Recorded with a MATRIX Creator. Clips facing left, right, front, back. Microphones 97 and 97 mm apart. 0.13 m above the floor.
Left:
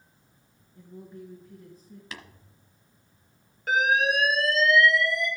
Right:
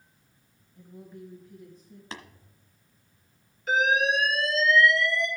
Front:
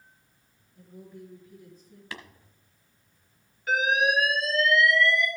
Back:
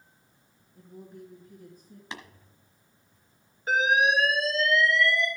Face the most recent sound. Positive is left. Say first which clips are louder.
# even, back 1 dB
turn(degrees=120)